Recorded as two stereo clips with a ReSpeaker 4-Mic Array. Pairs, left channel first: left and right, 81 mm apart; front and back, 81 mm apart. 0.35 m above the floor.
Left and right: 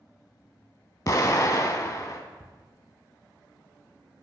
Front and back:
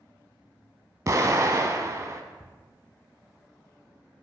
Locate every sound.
1.1 s an explosion: 135° left, 0.8 m
2.4 s ticking: 85° left, 0.9 m